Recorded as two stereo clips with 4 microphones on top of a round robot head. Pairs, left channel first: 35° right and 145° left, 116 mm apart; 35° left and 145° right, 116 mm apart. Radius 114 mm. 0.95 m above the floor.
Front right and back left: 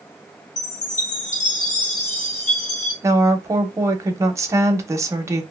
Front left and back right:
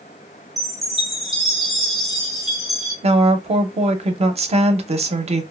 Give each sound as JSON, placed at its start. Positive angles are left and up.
{"t": 0.6, "sound": "a chime", "azimuth_deg": -55, "distance_m": 0.7}
{"t": 3.0, "sound": "a woman speaking", "azimuth_deg": -155, "distance_m": 0.8}